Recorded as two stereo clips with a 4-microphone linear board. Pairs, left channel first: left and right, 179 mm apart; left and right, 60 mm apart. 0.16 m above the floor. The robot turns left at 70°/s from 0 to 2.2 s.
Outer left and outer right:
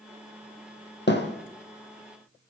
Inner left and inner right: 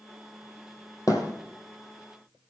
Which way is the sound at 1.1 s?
70° left (ahead or behind).